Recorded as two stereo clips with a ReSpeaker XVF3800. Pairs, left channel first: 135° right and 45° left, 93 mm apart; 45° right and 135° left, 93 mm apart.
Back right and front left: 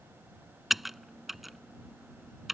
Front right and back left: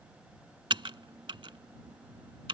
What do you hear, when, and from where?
0.7 s typing on a keyboard: 135° left